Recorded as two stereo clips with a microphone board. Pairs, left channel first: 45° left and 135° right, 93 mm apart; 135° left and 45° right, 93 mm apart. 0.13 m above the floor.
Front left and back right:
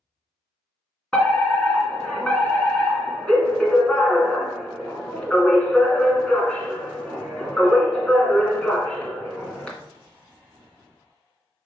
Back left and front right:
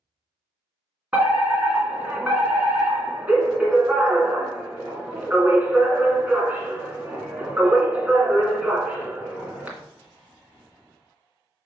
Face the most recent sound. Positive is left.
turn(degrees=-10)